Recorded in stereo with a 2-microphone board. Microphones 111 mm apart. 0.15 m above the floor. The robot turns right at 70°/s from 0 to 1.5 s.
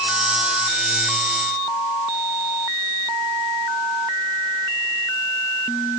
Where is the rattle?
No rattle in this recording.